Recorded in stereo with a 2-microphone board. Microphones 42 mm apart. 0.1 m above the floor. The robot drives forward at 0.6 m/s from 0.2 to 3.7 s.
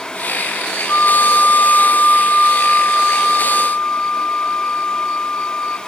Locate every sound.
0.9 s a flute: 70° left (ahead or behind), 0.7 m; by 5.8 s 20° left (ahead or behind), 1.8 m